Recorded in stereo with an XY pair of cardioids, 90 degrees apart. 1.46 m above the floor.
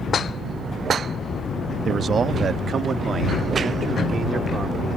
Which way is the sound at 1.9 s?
55° right.